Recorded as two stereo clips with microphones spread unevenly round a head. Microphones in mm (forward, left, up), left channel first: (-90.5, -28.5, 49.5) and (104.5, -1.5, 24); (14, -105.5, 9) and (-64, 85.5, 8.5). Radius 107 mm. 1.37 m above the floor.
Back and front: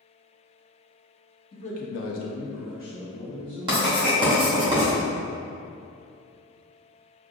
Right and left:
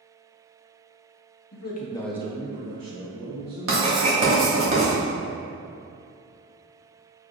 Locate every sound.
1.5 s a man speaking: 105° right, 1.0 m; by 4.3 s 120° left, 3 m
3.7 s writing: 75° left, 1.5 m